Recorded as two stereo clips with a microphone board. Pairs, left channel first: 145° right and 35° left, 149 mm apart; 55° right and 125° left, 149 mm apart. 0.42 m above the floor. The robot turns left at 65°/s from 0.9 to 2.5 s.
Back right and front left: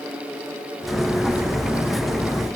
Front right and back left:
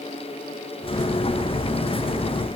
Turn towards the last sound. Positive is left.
No sound to turn to.